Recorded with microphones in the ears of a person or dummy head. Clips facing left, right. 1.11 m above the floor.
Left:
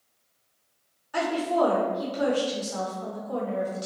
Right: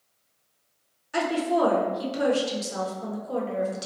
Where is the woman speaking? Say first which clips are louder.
Right 1 dB; 25° right (ahead or behind), 0.6 m.